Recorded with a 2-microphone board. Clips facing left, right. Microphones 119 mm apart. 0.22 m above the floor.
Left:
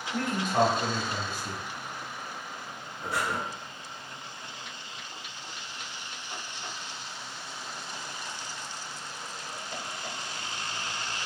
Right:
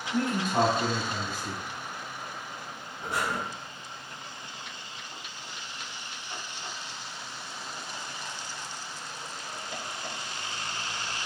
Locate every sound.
0.1 s a man speaking: 10° right (ahead or behind), 1.6 m
3.0 s breathing: 20° right (ahead or behind), 1.4 m